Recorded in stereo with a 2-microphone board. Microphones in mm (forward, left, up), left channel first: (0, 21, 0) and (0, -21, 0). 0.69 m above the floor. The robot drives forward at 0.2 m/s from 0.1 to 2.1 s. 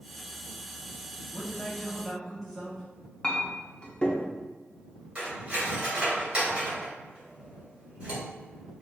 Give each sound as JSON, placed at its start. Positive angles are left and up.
{"t": 1.3, "sound": "a man speaking", "side_deg": 5, "distance_m": 1.0}
{"t": 3.2, "sound": "a clink", "side_deg": 20, "distance_m": 0.5}
{"t": 5.2, "sound": "cutlery clinking", "side_deg": -25, "distance_m": 1.8}